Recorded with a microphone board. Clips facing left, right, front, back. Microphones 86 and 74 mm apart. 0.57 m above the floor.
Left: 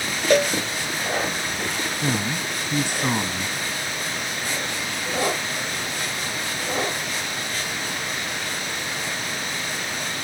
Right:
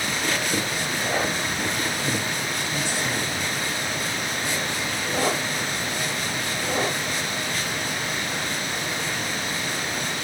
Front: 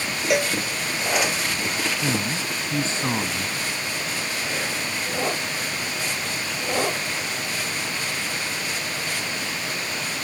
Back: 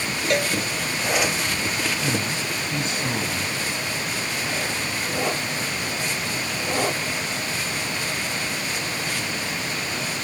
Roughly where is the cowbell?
Left.